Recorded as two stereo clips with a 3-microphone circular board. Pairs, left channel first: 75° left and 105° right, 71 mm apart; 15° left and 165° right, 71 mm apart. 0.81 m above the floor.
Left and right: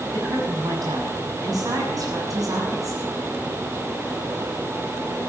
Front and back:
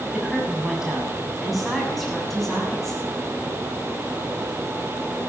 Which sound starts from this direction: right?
A woman speaking, at 0.1 s.